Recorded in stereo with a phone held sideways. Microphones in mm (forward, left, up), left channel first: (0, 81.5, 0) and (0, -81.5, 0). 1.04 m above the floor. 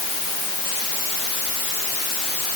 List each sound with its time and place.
Only background noise.